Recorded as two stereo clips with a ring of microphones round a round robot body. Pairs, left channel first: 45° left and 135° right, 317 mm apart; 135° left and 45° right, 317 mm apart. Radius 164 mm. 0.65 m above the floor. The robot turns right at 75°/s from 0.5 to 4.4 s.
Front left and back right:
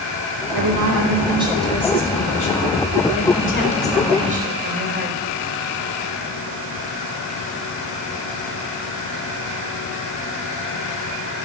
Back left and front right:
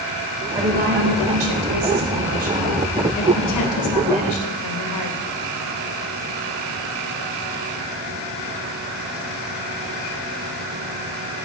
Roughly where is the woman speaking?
Behind right.